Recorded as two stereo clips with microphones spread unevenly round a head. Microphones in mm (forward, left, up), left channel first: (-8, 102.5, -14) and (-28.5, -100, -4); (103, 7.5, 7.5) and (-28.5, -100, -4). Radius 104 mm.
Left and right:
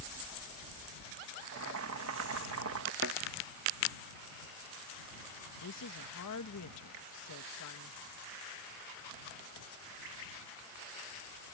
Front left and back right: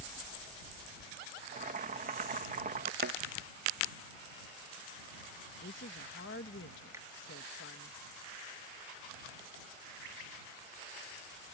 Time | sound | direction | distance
1.4 | boiling | 100° right | ?
3.0 | a thud | 120° right | ?
5.6 | a woman speaking | 80° left | ?
6.9 | a finger snap | 65° right | ?